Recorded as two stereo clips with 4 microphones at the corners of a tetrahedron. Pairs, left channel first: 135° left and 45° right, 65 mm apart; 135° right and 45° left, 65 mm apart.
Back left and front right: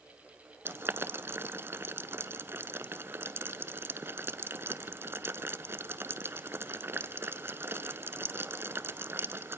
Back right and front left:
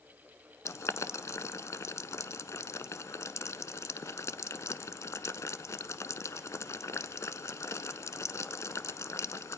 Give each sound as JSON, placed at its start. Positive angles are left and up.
{"t": 0.7, "sound": "boiling", "azimuth_deg": -95, "distance_m": 0.9}